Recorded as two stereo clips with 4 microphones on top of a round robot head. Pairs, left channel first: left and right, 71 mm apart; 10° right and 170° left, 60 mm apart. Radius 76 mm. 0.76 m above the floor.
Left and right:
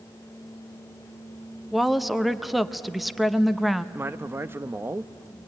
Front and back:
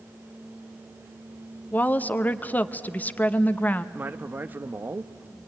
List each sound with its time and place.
1.7 s a woman speaking: 5° right, 0.8 m
4.0 s a man speaking: 140° right, 0.7 m